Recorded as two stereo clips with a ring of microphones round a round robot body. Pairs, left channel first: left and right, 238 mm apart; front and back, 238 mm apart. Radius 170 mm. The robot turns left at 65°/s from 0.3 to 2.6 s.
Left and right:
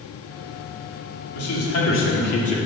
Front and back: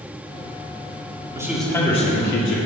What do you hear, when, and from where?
1.4 s a man speaking: 105° left, 2 m; by 2.6 s 25° left, 2 m